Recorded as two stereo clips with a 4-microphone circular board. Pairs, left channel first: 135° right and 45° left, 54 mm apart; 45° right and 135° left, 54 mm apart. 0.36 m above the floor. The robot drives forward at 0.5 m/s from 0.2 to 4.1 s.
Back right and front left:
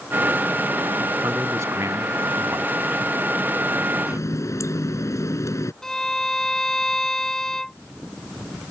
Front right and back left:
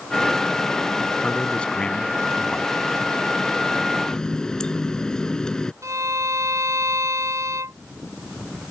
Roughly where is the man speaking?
Ahead left.